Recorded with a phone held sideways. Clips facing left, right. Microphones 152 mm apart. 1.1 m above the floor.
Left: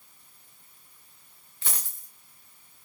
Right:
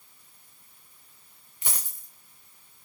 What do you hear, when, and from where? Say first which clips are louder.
1.6 s a dropped coin: right 1 dB; 15° right (ahead or behind), 0.9 m